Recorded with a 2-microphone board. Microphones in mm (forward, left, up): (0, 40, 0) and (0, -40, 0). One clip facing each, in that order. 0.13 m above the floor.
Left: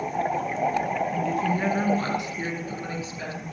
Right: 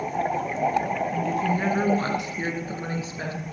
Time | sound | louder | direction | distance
1.1 | a woman speaking | even | centre (ahead or behind) | 1.9 m